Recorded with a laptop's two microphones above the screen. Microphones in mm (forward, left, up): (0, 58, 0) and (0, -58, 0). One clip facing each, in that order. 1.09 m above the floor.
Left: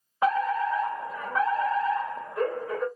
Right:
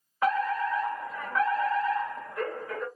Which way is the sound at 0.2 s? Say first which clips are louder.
Left 2 dB; 25° left (ahead or behind).